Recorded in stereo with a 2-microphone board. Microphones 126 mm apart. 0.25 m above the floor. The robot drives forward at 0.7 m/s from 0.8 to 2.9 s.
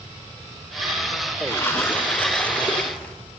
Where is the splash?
20° left (ahead or behind), 0.7 m; by 3.1 s 10° left (ahead or behind), 1.7 m.